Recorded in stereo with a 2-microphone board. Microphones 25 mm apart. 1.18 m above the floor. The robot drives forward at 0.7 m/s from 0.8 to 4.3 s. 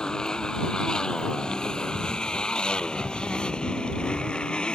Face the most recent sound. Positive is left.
turn(degrees=35)  # may be behind; listen again after turning